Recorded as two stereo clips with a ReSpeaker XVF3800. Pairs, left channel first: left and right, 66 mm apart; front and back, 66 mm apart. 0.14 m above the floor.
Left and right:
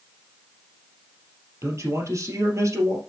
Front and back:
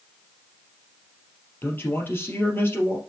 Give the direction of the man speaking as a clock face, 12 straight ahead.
2 o'clock.